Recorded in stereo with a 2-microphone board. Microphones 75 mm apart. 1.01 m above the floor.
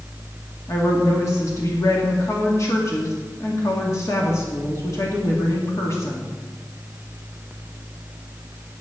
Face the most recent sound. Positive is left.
turn(degrees=40)  # may be behind; listen again after turning